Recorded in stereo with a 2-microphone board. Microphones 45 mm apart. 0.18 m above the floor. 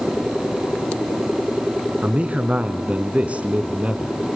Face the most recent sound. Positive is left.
turn(degrees=-30)  # may be behind; listen again after turning